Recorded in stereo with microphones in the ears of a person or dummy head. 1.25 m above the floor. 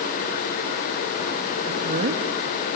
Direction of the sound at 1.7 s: 55° right (ahead or behind).